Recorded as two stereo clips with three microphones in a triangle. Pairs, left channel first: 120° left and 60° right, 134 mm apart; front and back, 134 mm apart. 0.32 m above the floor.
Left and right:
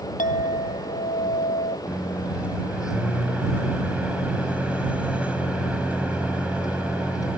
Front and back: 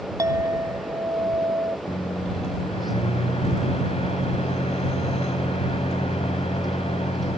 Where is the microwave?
20° left.